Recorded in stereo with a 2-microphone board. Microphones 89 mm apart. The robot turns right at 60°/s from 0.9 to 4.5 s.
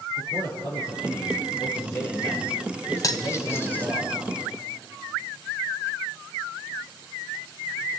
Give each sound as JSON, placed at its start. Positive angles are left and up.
{"t": 0.2, "sound": "a man speaking", "azimuth_deg": 85, "distance_m": 5.0}
{"t": 3.0, "sound": "cutlery clinking", "side_deg": 45, "distance_m": 0.9}